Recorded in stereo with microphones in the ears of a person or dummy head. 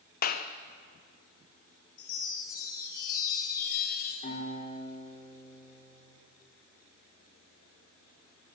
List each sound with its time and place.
0.2 s a clap: 50° left (ahead or behind), 0.8 m
2.0 s a chime: 55° left (ahead or behind), 3 m
4.2 s a guitar: 45° left (ahead or behind), 5 m